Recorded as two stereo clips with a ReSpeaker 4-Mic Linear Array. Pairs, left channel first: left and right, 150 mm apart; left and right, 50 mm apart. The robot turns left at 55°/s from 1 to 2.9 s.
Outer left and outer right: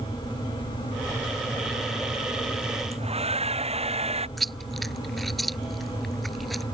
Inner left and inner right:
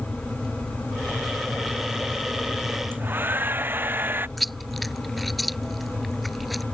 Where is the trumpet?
I don't hear a trumpet.